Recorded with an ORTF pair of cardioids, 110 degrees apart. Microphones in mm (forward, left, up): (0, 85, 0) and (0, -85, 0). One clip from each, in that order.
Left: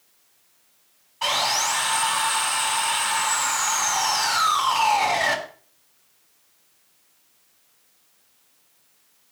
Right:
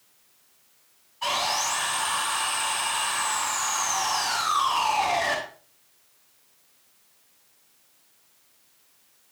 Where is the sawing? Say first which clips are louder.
Left 3 dB; 60° left, 7 m.